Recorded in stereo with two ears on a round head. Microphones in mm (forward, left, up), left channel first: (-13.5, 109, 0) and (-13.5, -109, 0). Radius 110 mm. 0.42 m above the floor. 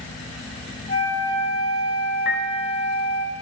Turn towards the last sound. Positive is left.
turn(degrees=50)  # may be behind; listen again after turning